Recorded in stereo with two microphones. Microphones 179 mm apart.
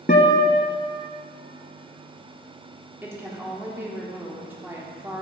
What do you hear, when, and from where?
0.1 s a guitar: 50° left (ahead or behind), 1.0 m
3.0 s a woman speaking: 15° right (ahead or behind), 1.4 m